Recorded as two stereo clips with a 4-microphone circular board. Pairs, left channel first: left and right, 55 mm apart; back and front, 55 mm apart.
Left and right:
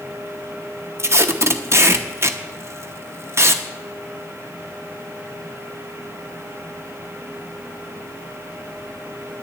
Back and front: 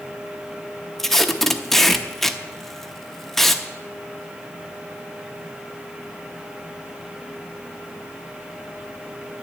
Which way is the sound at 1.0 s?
95° right.